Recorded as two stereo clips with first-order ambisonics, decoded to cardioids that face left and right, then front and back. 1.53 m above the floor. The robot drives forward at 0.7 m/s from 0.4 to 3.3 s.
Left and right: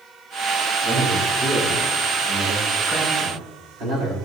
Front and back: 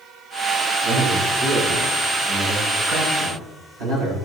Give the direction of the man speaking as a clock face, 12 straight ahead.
5 o'clock.